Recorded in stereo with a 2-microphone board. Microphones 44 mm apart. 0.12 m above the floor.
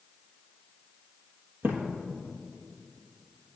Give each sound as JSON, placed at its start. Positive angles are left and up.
{"t": 1.6, "sound": "a thud", "side_deg": -55, "distance_m": 1.1}